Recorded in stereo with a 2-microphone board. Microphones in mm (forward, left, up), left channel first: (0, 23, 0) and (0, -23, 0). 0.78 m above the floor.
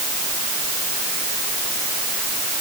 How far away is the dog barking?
No dog barking in this recording.